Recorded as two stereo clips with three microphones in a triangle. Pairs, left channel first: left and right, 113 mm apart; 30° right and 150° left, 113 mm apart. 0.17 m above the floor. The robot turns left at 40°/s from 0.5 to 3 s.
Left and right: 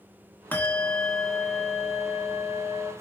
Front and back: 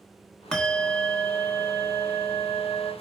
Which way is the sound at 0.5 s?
45° left.